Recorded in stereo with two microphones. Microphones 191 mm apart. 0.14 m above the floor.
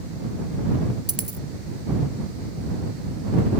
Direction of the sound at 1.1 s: 30° left (ahead or behind).